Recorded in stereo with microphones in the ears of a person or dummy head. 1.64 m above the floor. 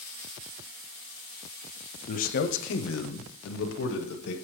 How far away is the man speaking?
About 0.8 m.